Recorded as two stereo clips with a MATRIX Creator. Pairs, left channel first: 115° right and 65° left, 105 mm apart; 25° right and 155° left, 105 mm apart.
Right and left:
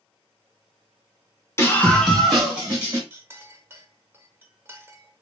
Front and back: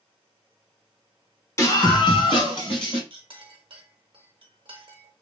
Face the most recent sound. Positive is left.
turn(degrees=135)